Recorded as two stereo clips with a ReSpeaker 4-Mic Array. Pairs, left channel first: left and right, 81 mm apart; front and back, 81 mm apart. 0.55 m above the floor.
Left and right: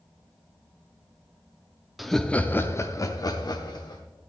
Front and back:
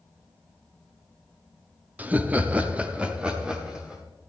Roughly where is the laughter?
Behind.